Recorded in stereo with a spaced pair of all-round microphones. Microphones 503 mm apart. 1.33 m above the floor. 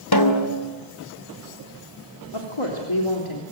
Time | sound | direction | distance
0.1 | a snare drum | 45° left (ahead or behind) | 3 m
2.3 | a woman speaking | 65° left (ahead or behind) | 3.5 m